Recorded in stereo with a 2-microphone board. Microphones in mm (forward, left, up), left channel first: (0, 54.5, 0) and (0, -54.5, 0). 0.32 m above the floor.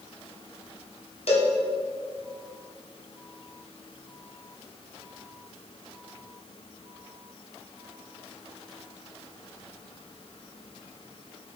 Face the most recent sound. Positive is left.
turn(degrees=70)  # may be behind; listen again after turning